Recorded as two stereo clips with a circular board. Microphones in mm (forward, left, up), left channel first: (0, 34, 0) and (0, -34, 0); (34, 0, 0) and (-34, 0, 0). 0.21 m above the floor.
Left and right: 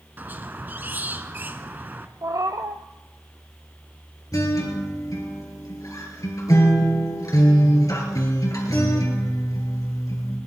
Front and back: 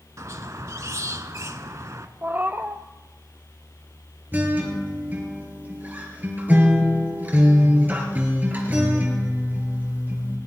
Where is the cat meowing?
120° right, 0.8 m.